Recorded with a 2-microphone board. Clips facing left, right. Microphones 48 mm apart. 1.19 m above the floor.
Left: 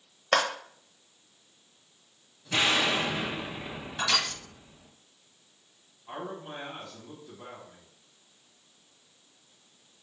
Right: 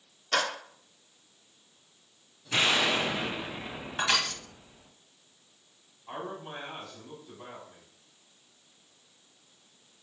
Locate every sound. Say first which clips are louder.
0.3 s a clap: left 3 dB; 55° left (ahead or behind), 1.0 m
2.5 s an explosion: even; 5° right (ahead or behind), 0.7 m
4.0 s crushing: right 1 dB; 30° right (ahead or behind), 1.2 m
6.1 s a man speaking: even; 5° right (ahead or behind), 2.0 m